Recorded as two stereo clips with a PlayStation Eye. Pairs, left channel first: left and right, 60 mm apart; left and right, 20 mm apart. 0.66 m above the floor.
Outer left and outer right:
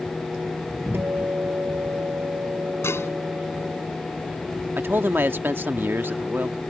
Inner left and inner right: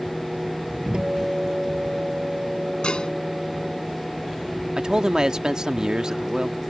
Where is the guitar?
45° right (ahead or behind).